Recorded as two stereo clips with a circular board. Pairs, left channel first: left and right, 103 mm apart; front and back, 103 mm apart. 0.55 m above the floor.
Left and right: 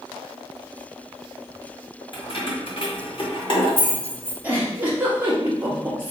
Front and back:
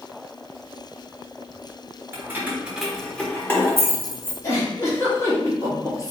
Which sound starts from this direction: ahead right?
A giggle, at 4.4 s.